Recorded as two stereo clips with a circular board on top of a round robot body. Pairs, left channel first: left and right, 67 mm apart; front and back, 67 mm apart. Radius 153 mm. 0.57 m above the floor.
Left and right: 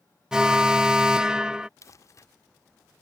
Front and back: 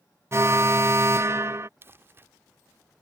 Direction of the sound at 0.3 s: 165° right.